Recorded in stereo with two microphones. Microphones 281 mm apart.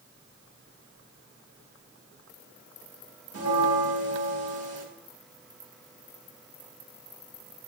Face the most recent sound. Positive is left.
turn(degrees=-60)  # may be behind; listen again after turning